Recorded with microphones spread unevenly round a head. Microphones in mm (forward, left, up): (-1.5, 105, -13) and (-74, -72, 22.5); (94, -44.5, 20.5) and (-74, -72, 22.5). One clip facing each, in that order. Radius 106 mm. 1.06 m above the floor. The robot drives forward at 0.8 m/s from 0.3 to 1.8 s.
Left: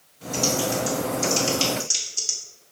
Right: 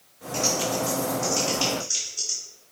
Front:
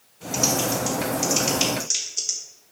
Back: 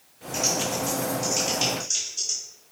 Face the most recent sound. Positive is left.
turn(degrees=20)